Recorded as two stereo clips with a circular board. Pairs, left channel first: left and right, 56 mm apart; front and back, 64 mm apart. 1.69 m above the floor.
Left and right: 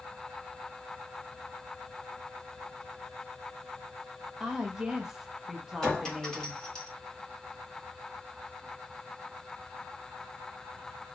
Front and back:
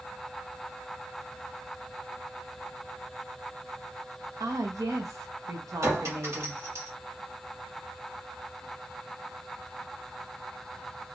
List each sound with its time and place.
4.4 s a woman speaking: 170° right, 1.0 m
5.8 s a clink: 165° left, 1.4 m